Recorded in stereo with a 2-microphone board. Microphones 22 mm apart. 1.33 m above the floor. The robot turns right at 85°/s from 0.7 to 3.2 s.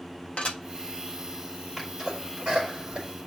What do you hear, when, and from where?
0.4 s dishes clattering: 70° left (ahead or behind), 1.4 m
1.8 s a sneeze: 5° left (ahead or behind), 4.5 m; by 3.1 s 70° right (ahead or behind), 4.5 m